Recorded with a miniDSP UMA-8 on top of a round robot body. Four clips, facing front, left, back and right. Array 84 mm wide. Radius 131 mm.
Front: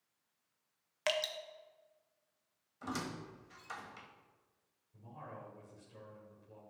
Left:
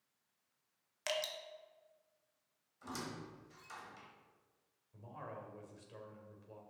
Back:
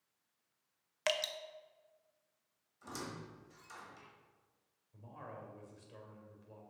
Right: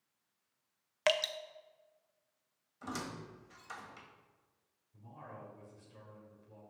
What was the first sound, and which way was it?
Dripping, 95° right.